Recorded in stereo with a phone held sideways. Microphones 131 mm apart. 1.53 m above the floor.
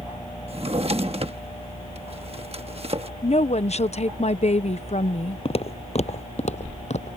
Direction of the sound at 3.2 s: 55° left (ahead or behind).